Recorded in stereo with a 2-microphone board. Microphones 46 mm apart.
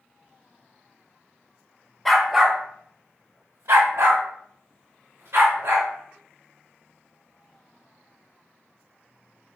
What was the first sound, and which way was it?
A dog barking, 5° left (ahead or behind).